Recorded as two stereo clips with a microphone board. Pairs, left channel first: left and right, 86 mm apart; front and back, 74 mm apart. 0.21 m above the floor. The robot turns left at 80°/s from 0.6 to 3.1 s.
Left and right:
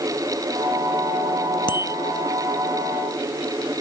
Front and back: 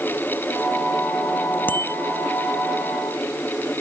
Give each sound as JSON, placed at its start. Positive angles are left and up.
{"t": 1.7, "sound": "a bicycle bell", "azimuth_deg": 65}